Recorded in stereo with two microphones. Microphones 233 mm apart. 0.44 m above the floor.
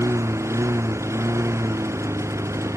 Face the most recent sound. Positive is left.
turn(degrees=-10)  # may be behind; listen again after turning